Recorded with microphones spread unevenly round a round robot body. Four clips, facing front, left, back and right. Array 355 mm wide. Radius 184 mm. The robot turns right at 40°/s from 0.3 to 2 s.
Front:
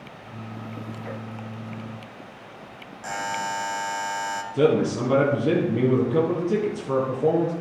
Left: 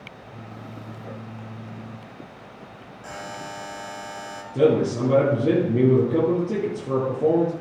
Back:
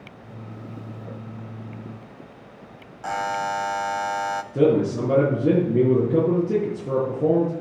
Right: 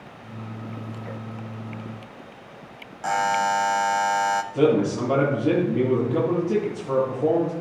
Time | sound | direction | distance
3.0 | a buzzer | 90° right | 1.0 m
4.5 | a man speaking | 160° left | 6.5 m